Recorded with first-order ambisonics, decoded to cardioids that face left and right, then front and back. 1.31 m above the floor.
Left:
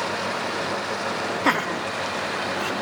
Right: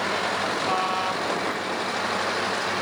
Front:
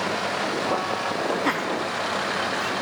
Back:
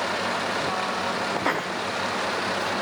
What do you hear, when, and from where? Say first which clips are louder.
1.4 s laughter: left 4 dB, front 1 dB; 85° left, 0.7 m